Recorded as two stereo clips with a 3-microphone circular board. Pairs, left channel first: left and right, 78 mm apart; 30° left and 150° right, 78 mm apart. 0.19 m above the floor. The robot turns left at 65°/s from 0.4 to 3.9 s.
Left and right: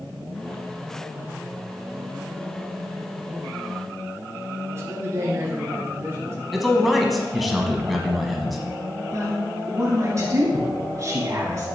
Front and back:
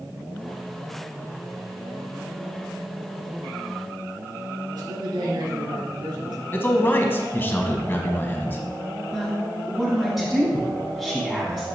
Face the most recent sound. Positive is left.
turn(degrees=-70)